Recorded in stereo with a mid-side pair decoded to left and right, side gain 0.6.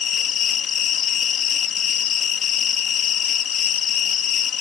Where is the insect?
45° left.